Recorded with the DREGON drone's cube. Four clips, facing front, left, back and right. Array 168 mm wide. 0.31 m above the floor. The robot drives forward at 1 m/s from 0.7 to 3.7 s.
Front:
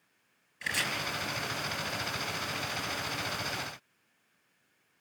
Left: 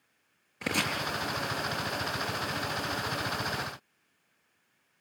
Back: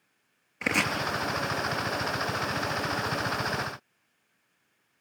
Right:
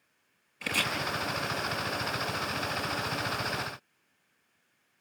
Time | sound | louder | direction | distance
0.6 | chopping | left 2 dB, back 8 dB | 145° left | 3 m